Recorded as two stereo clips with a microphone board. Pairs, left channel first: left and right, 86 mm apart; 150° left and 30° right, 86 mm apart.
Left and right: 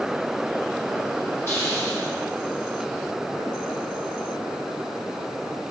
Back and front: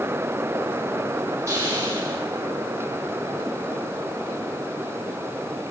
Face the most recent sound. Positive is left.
turn(degrees=30)